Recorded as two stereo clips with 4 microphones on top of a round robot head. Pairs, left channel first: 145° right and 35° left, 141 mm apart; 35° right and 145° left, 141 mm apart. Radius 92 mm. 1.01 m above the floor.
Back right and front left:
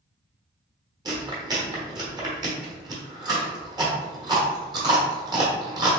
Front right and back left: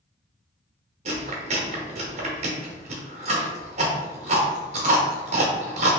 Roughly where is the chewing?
Left.